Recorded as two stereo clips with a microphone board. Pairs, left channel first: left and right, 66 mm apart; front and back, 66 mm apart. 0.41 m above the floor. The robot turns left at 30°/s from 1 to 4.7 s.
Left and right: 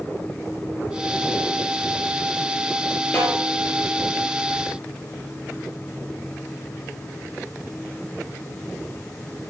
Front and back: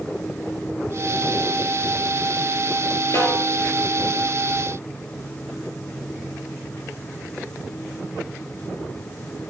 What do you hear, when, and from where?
3.1 s a snare drum: 30° left, 5 m; by 3.4 s 25° left, 5 m